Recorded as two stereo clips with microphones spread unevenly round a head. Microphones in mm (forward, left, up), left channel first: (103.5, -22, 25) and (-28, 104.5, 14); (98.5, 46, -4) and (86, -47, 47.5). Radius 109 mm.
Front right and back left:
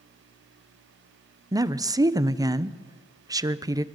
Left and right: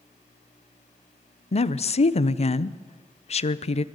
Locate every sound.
1.5 s a woman speaking: 65° left, 0.9 m